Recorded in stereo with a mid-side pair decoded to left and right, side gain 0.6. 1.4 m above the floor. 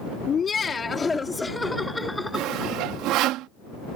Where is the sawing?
70° right.